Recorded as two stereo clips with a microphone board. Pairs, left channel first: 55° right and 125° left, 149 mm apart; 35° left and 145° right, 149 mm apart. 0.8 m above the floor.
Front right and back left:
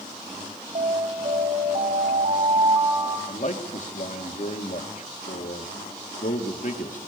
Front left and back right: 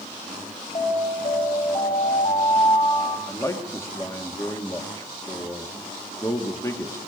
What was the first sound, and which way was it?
An alarm, 85° left.